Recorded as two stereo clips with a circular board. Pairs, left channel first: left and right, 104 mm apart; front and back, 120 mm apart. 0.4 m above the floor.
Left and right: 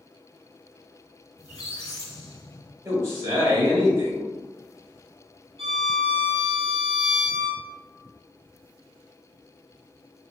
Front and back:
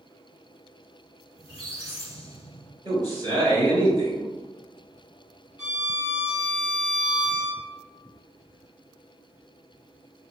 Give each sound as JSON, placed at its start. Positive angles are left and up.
{"t": 1.4, "sound": "a squeak", "azimuth_deg": 30, "distance_m": 1.0}
{"t": 2.9, "sound": "a man speaking", "azimuth_deg": -140, "distance_m": 1.9}
{"t": 5.6, "sound": "a violin", "azimuth_deg": -110, "distance_m": 1.8}